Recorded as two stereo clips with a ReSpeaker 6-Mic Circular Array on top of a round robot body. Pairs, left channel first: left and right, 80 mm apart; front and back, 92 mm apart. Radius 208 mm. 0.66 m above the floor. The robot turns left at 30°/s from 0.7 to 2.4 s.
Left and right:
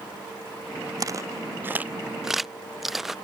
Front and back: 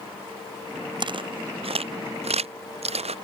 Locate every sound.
1.0 s footsteps: 140° right; by 3.1 s 175° right